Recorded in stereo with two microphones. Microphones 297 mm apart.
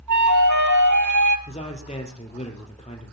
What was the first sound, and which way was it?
A flute, 80° right.